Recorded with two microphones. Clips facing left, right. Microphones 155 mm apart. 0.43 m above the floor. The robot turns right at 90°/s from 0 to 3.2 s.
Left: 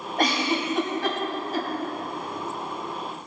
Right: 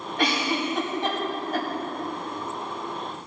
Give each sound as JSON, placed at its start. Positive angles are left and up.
{"t": 0.2, "sound": "a giggle", "side_deg": 50, "distance_m": 3.0}